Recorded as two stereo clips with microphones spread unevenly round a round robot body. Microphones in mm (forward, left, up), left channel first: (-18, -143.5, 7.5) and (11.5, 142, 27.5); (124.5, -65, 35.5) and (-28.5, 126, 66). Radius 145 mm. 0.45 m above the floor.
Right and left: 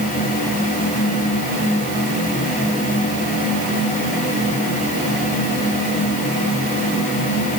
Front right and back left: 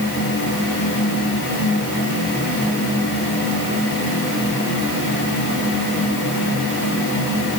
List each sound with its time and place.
Only background noise.